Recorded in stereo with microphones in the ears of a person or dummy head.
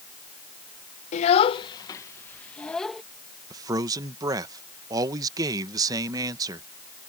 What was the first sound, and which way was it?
A child speaking, 45° left (ahead or behind).